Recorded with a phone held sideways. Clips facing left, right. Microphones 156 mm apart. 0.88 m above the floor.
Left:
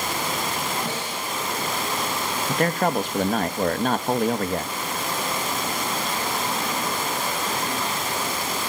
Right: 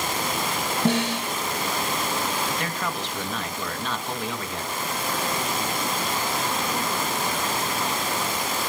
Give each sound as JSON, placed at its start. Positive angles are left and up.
{"t": 0.8, "sound": "a snare drum", "side_deg": -75, "distance_m": 3.0}
{"t": 2.5, "sound": "a man speaking", "side_deg": 50, "distance_m": 0.8}